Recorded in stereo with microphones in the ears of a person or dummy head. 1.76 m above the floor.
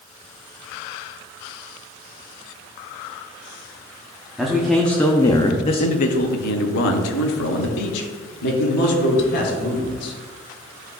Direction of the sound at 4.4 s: 5° right (ahead or behind).